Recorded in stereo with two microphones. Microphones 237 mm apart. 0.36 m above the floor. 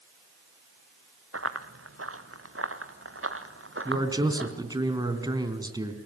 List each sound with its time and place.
1.3 s running footsteps: 75° right (ahead or behind), 1.9 m; by 4.5 s 60° right (ahead or behind), 3.5 m
3.9 s a man speaking: 15° right (ahead or behind), 3 m